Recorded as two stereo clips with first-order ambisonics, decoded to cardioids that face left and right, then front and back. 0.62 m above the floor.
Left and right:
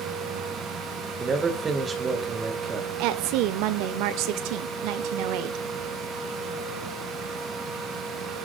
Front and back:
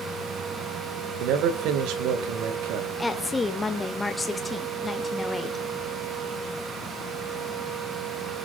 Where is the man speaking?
160° right, 2.5 m.